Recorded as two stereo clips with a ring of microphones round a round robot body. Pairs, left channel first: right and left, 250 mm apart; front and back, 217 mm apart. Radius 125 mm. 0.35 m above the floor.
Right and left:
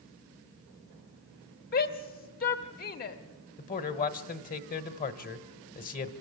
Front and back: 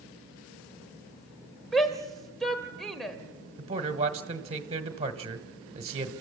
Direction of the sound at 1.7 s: 90° right.